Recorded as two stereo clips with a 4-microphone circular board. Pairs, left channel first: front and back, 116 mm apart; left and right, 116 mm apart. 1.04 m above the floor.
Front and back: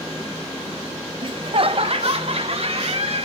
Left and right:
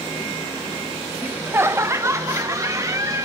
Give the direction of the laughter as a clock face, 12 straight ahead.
5 o'clock.